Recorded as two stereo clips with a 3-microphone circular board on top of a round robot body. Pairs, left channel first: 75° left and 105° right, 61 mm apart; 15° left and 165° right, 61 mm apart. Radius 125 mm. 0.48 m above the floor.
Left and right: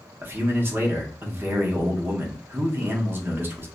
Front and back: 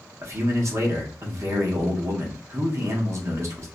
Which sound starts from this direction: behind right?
A man speaking, at 0.2 s.